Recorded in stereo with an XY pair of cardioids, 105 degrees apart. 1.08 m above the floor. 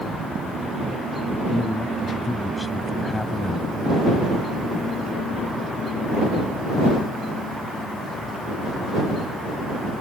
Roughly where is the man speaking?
Ahead left.